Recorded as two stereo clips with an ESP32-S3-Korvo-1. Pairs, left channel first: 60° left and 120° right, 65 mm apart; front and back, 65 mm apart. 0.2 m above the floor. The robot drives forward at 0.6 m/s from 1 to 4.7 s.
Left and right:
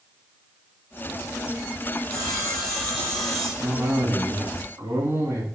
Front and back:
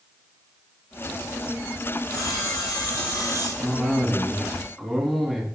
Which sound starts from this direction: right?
A cough, at 3.6 s.